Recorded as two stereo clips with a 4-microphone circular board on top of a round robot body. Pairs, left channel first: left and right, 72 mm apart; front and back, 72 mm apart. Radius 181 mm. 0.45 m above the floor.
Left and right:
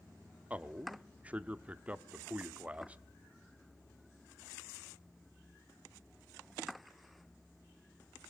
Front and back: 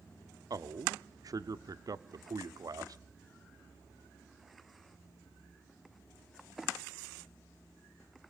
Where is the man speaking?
160° right, 1.2 m.